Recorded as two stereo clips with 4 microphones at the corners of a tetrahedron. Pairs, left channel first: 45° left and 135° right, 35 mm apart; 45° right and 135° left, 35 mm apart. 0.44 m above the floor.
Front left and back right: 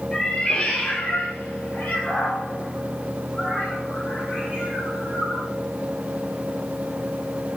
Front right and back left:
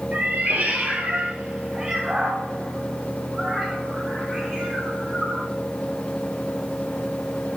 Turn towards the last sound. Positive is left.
turn(degrees=30)